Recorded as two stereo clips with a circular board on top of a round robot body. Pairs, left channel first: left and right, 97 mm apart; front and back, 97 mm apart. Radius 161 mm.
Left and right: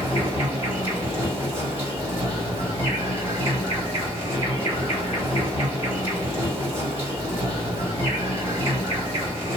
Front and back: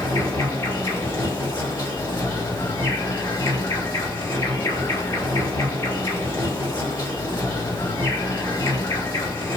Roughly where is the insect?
Ahead right.